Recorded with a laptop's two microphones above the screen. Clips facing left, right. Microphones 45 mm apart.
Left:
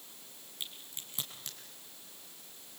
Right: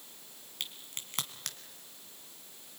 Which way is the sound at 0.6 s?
70° right (ahead or behind).